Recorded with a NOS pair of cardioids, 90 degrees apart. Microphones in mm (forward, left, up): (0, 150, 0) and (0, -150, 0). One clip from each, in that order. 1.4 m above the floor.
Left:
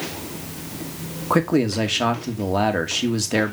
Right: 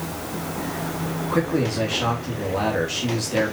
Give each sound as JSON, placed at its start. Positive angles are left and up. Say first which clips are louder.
{"t": 1.3, "sound": "a man speaking", "louder": "left 4 dB", "azimuth_deg": 60, "distance_m": 2.5}